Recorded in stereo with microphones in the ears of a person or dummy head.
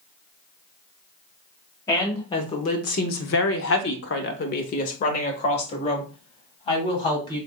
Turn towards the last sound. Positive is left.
turn(degrees=30)  # may be behind; listen again after turning